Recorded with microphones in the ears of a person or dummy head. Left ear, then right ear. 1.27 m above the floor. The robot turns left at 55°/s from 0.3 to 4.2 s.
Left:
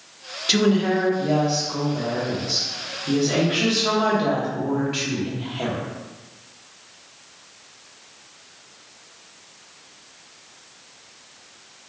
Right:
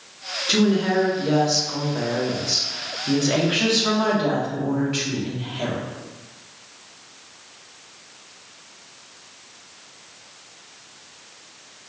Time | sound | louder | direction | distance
0.5 | a woman speaking | left 1 dB | 25° left | 0.9 m